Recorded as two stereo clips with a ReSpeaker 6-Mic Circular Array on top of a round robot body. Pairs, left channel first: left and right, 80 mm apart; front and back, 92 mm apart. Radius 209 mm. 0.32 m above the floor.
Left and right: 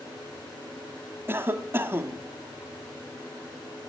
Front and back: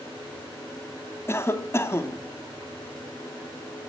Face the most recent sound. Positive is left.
turn(degrees=-45)